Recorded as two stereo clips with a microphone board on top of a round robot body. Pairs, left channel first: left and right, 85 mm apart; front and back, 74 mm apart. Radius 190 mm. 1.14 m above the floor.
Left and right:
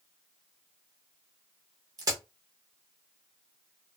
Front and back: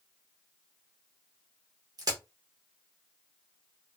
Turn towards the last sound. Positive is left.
turn(degrees=-140)